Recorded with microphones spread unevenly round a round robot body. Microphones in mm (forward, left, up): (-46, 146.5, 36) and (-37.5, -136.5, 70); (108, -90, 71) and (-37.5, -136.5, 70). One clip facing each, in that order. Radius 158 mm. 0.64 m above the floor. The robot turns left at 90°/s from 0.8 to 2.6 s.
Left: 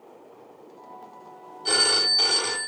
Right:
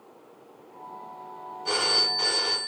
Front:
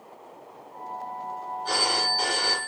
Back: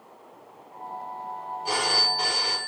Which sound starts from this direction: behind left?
A phone ringing, at 1.6 s.